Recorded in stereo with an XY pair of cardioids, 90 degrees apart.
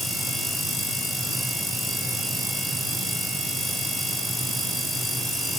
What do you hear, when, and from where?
Only background noise.